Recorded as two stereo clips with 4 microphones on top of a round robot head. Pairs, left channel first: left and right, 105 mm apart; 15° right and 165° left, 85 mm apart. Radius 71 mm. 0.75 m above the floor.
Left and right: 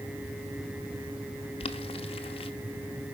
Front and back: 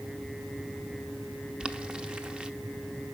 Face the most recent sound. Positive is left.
turn(degrees=90)